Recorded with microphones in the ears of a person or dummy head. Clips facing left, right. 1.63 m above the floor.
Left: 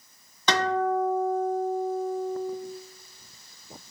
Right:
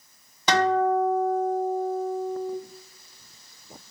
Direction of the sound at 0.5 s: 20° right (ahead or behind).